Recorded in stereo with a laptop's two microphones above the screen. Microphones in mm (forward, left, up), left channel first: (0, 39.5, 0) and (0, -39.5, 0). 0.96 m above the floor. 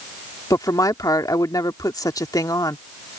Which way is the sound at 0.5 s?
50° left (ahead or behind).